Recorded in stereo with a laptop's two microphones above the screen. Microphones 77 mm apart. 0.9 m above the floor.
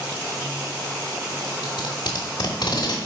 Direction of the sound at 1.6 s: 70° left (ahead or behind).